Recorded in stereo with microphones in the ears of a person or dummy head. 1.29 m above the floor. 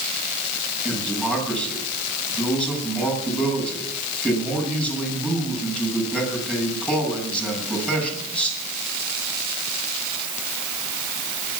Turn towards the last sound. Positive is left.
turn(degrees=5)  # may be behind; listen again after turning